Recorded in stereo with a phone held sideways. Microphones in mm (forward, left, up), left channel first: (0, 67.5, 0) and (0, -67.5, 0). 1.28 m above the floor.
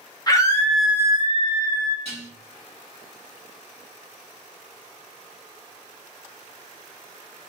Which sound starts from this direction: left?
A scream, at 0.3 s.